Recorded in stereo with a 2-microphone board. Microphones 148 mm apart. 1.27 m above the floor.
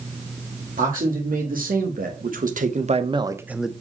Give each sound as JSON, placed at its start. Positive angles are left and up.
{"t": 0.8, "sound": "a man speaking", "side_deg": -75, "distance_m": 2.0}